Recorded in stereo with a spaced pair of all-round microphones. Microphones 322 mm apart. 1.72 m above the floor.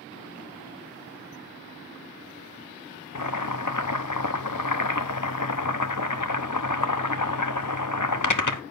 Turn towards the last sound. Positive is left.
turn(degrees=65)  # may be behind; listen again after turning